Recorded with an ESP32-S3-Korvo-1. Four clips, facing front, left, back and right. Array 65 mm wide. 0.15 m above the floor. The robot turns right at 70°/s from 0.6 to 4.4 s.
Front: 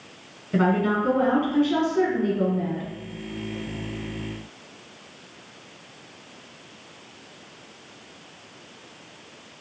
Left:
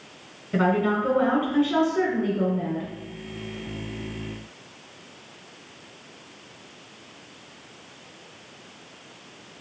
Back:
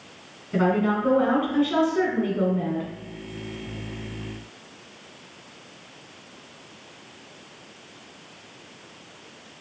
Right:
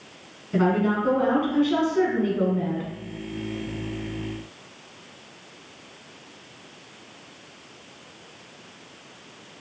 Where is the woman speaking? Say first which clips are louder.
Even, even; 80° left, 1.0 m; by 2.9 s 120° right, 1.0 m.